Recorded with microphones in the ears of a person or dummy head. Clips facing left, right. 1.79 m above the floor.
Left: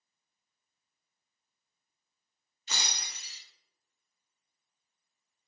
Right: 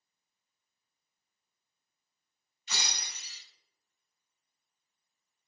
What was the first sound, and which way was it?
Breaking glass, 35° left (ahead or behind).